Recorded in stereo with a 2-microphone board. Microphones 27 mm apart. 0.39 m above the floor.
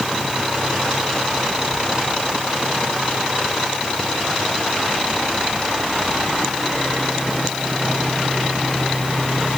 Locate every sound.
Only background noise.